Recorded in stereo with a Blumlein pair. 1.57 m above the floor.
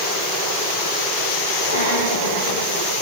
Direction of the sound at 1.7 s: 65° left.